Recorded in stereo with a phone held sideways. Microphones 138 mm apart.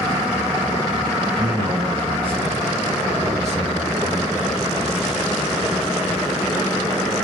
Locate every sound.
1.4 s a man speaking: 45° right (ahead or behind), 4.5 m; by 4.6 s 70° right (ahead or behind), 2 m